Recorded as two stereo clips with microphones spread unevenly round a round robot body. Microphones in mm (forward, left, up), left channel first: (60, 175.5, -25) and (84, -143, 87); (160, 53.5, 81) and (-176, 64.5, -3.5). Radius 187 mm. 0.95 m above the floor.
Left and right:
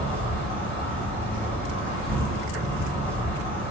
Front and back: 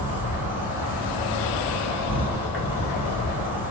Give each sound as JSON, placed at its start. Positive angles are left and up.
{"t": 0.0, "sound": "an insect", "azimuth_deg": 105, "distance_m": 1.3}